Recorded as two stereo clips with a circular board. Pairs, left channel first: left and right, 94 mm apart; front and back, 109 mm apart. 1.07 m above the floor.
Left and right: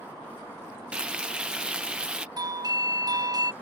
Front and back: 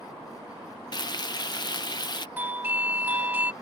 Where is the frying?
15° right.